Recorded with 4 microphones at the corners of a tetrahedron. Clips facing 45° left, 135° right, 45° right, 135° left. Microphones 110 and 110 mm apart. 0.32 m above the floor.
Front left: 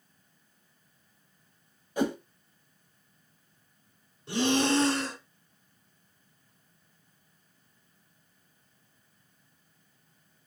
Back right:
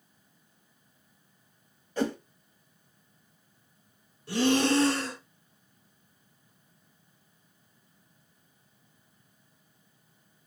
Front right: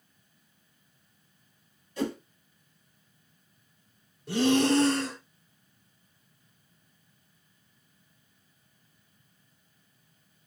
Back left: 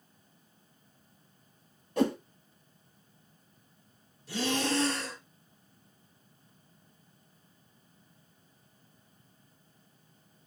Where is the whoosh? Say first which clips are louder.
Front left 1 dB, back left 4 dB; 120° left, 0.9 m.